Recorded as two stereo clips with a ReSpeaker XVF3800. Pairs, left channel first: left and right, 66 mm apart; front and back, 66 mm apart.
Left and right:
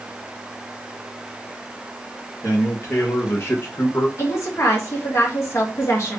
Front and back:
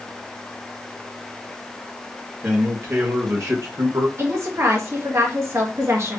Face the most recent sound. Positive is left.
turn(degrees=135)